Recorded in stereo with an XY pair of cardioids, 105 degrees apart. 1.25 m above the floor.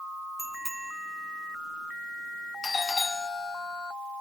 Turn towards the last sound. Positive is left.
turn(degrees=30)